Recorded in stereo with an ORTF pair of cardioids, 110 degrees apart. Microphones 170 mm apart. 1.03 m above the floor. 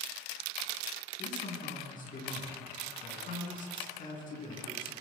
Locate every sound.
1.2 s a man speaking: 55° left, 10 m